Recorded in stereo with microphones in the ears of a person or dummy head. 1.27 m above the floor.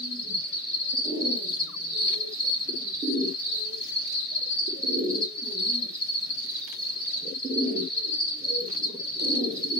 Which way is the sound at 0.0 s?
10° right (ahead or behind).